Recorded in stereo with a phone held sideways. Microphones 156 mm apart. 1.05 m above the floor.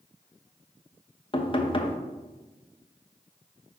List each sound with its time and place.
1.3 s knocking: 35° left (ahead or behind), 0.8 m